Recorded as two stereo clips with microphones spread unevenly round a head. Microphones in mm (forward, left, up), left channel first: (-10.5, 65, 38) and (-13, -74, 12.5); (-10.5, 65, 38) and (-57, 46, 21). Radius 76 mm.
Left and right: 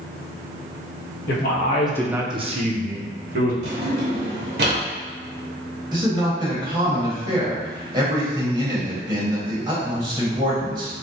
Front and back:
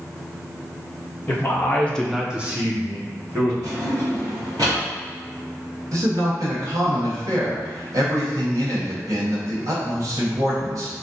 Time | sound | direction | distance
1.3 | a man speaking | 80° left | 0.9 m
3.6 | a drawer | 95° right | 1.0 m
5.9 | a man speaking | 155° right | 1.6 m